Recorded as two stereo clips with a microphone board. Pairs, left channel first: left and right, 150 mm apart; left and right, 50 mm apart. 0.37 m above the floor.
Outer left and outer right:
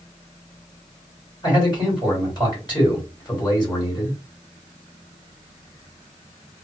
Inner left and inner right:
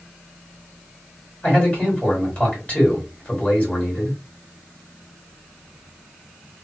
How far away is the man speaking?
About 1.8 m.